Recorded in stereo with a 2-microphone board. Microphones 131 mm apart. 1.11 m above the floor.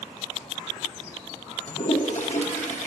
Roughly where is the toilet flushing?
Left.